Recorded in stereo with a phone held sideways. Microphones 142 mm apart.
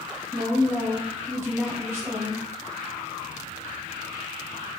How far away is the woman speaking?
About 1.9 m.